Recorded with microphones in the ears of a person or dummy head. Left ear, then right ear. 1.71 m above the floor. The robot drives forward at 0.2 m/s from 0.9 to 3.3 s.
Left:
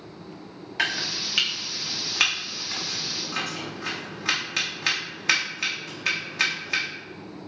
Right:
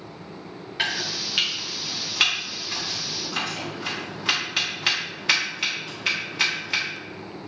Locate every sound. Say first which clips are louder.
0.8 s chopping: even; 25° left (ahead or behind), 0.6 m; by 6.8 s 15° left (ahead or behind), 1.0 m